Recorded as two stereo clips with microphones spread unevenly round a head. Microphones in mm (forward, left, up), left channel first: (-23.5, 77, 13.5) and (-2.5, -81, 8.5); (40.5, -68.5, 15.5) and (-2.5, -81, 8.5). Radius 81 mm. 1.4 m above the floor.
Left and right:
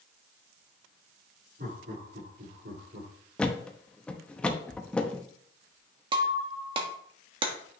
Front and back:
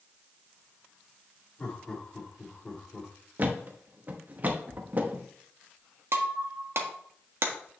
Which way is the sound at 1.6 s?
45° right.